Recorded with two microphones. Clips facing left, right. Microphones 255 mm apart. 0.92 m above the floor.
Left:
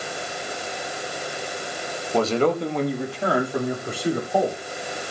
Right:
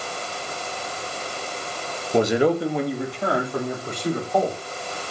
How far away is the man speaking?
About 1.4 m.